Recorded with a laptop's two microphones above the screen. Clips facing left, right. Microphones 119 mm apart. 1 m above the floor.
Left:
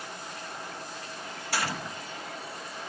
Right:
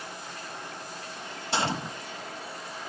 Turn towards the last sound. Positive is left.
turn(degrees=-25)  # may be behind; listen again after turning